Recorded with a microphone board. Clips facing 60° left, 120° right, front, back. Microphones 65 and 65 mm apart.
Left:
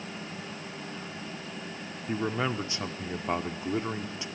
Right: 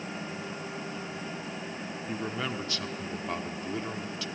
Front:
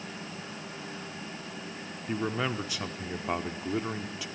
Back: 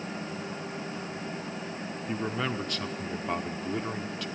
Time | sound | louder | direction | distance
2.1 | a man speaking | left 5 dB, front 1 dB | 70° left | 0.7 m